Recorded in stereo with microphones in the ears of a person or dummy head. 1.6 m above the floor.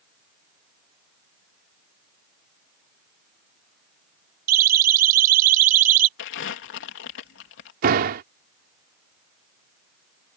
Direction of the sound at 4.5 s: 50° right (ahead or behind).